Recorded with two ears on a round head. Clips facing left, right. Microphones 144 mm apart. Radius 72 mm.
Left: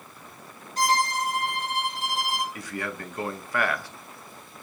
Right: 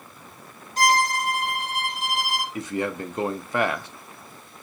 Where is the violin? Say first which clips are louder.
Right 3 dB; 65° right (ahead or behind), 2.5 m.